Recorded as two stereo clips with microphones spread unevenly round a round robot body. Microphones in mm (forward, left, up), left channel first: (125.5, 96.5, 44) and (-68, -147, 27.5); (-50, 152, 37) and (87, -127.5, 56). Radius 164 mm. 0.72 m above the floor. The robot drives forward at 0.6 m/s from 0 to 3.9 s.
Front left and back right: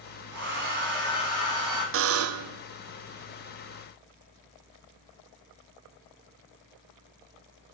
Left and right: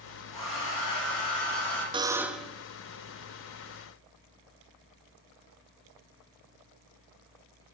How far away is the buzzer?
About 0.5 m.